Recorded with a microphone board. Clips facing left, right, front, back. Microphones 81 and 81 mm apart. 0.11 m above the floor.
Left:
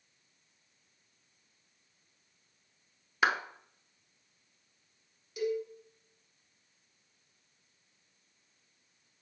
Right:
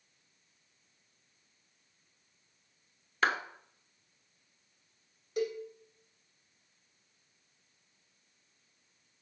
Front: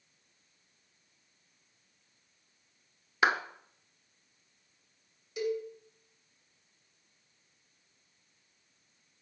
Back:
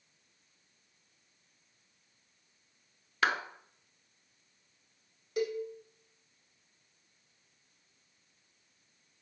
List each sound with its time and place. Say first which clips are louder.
3.2 s a clap: left 1 dB, front 3 dB; 25° left, 0.8 m
5.4 s a cowbell: left 1 dB, even; 140° right, 2.5 m